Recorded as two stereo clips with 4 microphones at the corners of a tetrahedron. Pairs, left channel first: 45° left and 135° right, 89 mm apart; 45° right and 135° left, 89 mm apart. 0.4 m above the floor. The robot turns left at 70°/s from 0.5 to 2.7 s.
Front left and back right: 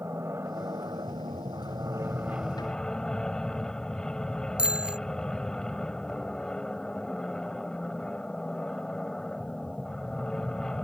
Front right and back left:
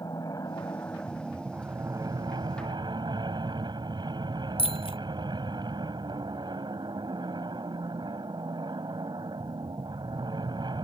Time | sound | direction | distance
0.0 | an aircraft | 80° right | ?
4.6 | a bicycle bell | 55° right | ?